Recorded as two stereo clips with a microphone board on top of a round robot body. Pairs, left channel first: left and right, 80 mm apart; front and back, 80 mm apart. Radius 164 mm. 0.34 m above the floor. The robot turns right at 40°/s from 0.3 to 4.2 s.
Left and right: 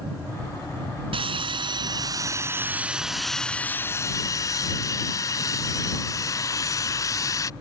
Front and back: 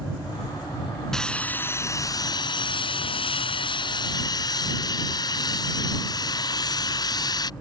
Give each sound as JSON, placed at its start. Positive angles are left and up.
{"t": 1.1, "sound": "sawing", "azimuth_deg": -85}